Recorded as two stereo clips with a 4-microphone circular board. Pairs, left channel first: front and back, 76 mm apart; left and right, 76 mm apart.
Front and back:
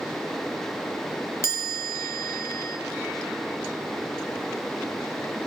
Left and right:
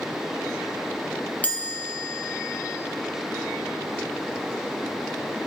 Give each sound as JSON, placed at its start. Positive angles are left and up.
{"t": 1.4, "sound": "a chime", "azimuth_deg": 30, "distance_m": 1.1}